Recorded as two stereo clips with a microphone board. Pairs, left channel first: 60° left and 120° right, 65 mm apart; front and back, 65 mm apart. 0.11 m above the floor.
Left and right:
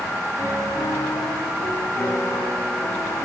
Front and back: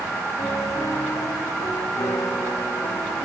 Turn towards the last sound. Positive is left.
turn(degrees=5)